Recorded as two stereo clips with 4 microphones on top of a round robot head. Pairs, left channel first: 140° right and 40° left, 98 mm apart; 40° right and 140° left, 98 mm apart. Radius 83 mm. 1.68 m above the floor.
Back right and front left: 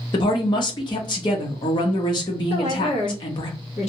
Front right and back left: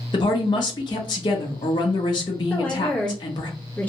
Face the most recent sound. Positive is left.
turn(degrees=-115)